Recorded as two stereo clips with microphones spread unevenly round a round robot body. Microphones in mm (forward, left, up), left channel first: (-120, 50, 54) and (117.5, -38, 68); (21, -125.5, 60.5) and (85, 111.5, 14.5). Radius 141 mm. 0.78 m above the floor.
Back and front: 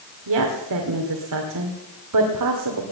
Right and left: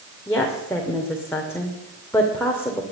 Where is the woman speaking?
20° right, 2.5 m.